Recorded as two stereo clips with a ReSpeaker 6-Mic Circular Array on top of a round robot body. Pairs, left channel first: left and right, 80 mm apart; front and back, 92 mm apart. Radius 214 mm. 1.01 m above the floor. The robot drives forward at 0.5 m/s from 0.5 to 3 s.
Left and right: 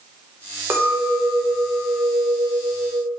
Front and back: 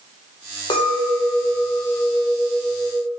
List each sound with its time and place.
0.7 s a clink: 30° right, 1.2 m; by 3.1 s 105° right, 0.7 m